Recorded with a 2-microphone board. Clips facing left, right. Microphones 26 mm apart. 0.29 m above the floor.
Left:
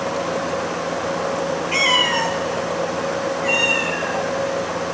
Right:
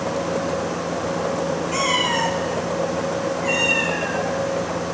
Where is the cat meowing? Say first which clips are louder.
Left 5 dB; 45° left (ahead or behind), 1.5 m; by 4.3 s centre (ahead or behind), 2.0 m.